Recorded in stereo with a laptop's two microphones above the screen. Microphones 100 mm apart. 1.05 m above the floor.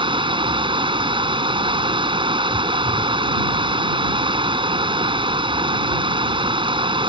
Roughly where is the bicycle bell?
I don't hear a bicycle bell.